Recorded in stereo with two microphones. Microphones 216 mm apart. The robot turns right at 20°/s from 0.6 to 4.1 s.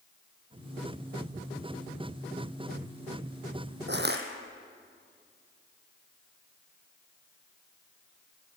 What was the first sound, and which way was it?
Crushing, 55° right (ahead or behind).